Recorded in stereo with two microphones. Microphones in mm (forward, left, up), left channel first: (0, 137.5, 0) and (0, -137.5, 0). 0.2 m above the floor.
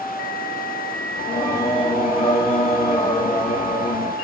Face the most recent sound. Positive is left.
turn(degrees=20)  # may be behind; listen again after turning